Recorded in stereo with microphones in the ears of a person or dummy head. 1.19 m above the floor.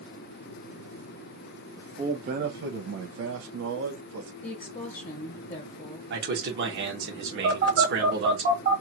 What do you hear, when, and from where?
1.8 s a man speaking: 15° right (ahead or behind), 0.7 m; by 4.3 s 65° right (ahead or behind), 1.1 m
4.4 s a woman speaking: 35° left (ahead or behind), 1.0 m
6.1 s a man speaking: 60° right (ahead or behind), 1.2 m
7.4 s a phone buzzing: 55° right (ahead or behind), 1.8 m